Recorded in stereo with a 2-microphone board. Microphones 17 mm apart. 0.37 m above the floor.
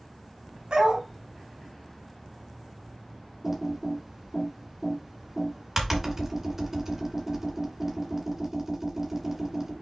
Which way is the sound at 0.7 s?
80° right.